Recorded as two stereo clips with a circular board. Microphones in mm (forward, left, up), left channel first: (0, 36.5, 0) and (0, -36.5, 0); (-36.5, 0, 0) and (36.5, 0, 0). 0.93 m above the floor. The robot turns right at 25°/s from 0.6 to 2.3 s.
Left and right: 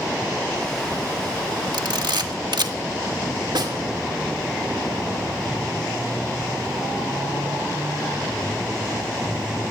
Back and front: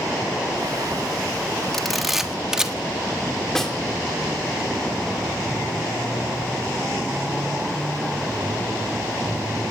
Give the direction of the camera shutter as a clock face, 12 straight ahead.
3 o'clock.